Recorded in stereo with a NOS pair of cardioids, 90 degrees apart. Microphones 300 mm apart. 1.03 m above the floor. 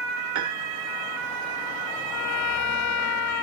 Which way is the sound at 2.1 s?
65° left.